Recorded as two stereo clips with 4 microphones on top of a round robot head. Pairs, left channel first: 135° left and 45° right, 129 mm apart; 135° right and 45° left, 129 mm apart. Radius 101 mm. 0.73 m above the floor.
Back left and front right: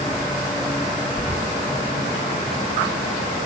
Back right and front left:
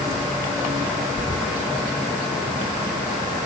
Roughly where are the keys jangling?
Ahead.